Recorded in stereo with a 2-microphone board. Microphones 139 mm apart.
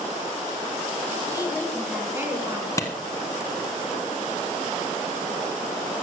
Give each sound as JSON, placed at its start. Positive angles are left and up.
{"t": 1.3, "sound": "a woman speaking", "side_deg": 30, "distance_m": 1.1}
{"t": 2.8, "sound": "a clap", "side_deg": 25, "distance_m": 1.0}